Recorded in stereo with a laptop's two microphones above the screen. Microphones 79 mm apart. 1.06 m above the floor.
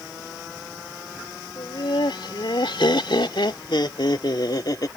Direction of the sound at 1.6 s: 80° left.